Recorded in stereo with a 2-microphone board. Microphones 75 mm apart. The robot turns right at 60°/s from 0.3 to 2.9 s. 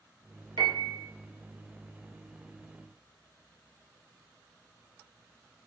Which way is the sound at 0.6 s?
70° right (ahead or behind).